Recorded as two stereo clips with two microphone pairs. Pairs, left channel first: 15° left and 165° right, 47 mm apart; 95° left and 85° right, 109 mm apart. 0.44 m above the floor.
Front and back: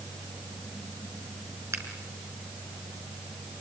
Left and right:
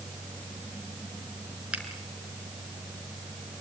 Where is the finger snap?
165° right, 4.5 m.